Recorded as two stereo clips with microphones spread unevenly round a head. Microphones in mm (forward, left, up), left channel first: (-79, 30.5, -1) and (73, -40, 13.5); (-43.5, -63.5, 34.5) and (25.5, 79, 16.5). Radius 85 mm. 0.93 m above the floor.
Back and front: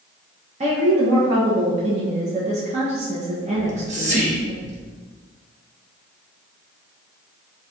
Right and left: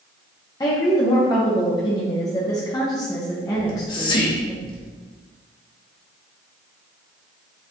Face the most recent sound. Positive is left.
turn(degrees=-60)